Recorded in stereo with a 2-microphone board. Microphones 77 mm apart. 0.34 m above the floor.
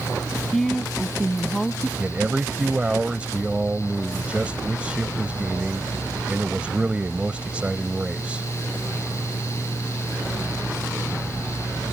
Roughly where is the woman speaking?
Centre.